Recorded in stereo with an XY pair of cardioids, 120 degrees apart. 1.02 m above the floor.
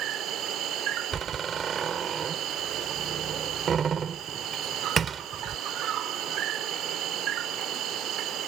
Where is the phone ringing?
I don't hear a phone ringing.